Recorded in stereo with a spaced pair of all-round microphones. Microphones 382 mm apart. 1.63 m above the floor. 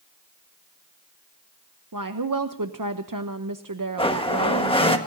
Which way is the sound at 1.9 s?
55° right (ahead or behind).